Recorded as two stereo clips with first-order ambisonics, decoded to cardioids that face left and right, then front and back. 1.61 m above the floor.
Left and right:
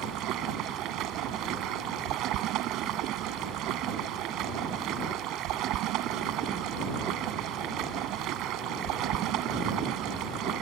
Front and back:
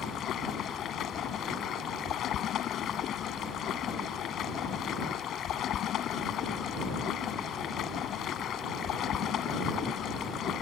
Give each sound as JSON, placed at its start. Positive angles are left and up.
{"t": 0.0, "sound": "running water", "azimuth_deg": -50}